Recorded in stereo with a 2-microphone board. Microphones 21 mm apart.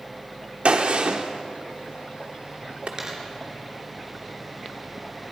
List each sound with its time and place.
0.7 s a gunshot: 70° right (ahead or behind), 1.2 m
3.0 s a dropped coin: 30° right (ahead or behind), 3.5 m